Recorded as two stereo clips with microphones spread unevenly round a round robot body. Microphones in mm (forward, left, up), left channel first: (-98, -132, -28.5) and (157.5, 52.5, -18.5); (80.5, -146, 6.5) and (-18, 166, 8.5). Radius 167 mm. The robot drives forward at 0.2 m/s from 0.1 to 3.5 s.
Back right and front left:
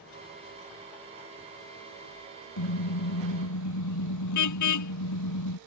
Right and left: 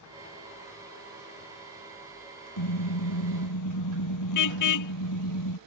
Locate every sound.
2.6 s a car horn: 110° right